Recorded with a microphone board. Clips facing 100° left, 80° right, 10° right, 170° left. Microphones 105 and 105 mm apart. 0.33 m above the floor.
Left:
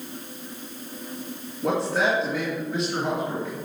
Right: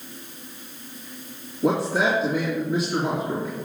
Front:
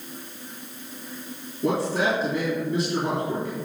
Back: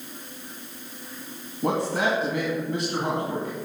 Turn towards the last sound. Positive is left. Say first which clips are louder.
# right 2 dB, front 1 dB
turn(degrees=-165)